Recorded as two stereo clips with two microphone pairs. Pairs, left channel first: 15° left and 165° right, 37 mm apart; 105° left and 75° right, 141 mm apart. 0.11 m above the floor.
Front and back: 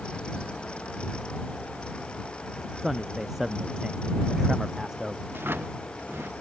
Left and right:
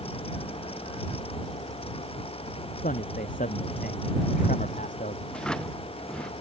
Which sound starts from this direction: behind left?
A man speaking, at 2.8 s.